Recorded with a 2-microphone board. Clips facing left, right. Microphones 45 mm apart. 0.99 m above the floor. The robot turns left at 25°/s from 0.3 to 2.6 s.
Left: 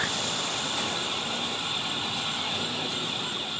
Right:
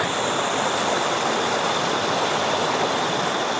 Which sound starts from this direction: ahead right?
Running water, at 0.0 s.